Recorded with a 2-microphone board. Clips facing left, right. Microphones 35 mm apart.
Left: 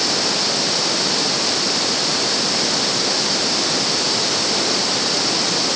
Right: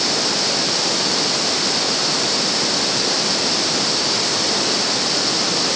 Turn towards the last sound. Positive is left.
No sound to turn to.